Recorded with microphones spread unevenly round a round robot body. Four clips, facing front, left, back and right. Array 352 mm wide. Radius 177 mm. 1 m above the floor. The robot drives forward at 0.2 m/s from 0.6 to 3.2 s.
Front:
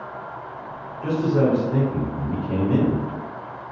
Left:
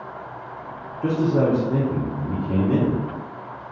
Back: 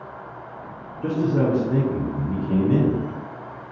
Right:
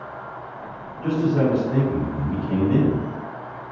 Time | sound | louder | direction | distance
1.0 | a man speaking | left 1 dB, front 1 dB | 125° left | 0.7 m